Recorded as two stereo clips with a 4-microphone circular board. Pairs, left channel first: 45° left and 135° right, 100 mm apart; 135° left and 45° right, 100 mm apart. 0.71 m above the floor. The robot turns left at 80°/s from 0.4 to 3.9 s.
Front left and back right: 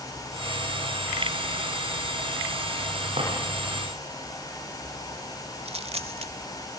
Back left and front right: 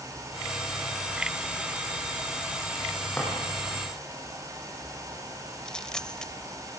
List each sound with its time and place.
3.2 s a drawer: 140° right, 10 m; by 3.3 s 155° right, 10 m
5.7 s a dropped coin: 140° right, 1.0 m